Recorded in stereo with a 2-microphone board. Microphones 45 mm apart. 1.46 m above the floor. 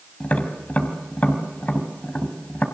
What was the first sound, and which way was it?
Tapping, 35° left (ahead or behind).